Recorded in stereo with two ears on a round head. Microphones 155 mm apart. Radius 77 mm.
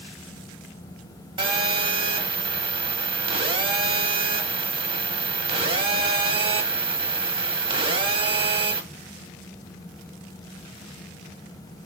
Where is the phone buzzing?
30° right (ahead or behind), 0.7 m.